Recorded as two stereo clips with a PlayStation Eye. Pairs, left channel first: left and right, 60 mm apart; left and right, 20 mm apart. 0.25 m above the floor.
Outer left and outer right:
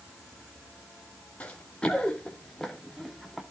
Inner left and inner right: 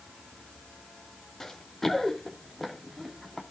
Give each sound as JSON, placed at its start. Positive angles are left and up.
{"t": 1.4, "sound": "running footsteps", "side_deg": 20, "distance_m": 3.0}